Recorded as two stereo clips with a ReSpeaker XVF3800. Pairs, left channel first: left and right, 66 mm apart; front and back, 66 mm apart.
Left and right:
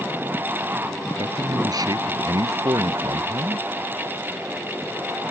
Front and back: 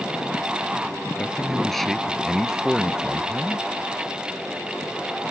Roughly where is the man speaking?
Right.